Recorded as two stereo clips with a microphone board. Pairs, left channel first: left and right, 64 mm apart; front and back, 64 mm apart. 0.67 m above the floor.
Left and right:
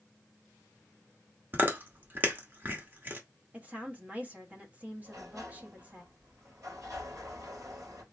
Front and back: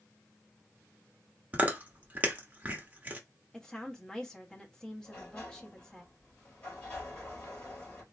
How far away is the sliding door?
About 3 m.